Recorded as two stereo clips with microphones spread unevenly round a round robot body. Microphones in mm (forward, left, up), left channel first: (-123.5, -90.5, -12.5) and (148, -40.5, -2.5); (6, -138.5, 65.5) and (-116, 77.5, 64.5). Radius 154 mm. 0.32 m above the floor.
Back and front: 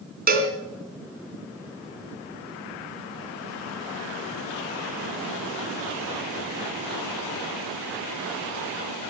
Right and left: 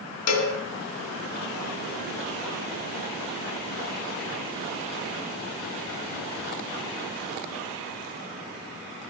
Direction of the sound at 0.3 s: 45° right.